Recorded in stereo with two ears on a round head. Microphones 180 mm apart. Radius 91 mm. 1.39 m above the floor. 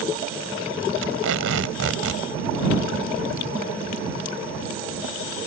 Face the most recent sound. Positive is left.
turn(degrees=-75)  # may be behind; listen again after turning